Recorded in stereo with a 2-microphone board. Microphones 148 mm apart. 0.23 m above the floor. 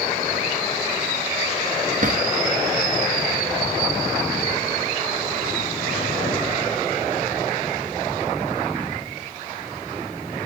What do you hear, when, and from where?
2.0 s a drawer: 60° right (ahead or behind), 1.6 m